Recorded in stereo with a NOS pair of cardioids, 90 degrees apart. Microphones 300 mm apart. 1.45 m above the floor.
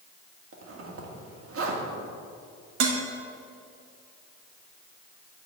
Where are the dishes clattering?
65° right, 1.6 m.